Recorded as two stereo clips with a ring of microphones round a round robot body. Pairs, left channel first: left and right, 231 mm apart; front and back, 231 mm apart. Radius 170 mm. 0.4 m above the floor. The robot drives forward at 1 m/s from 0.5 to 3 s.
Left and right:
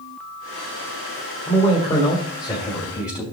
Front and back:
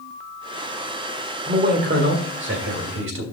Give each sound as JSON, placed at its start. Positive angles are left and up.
{"t": 1.5, "sound": "a man speaking", "azimuth_deg": 145, "distance_m": 1.7}